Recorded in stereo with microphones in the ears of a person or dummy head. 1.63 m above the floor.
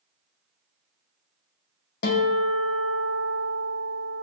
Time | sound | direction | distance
2.0 | a guitar | 70° left (ahead or behind) | 2 m